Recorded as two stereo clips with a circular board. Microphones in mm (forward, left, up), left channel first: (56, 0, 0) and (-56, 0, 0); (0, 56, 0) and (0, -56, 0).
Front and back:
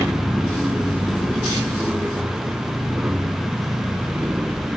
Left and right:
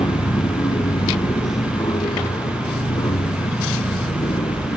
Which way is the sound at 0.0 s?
95° left.